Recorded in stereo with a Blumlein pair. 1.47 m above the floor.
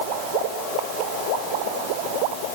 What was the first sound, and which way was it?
Only background noise.